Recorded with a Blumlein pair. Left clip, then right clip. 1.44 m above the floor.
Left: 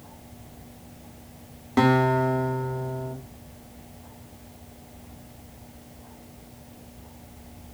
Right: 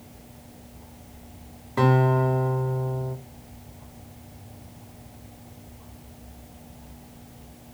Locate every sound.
1.8 s a guitar: 40° left, 3 m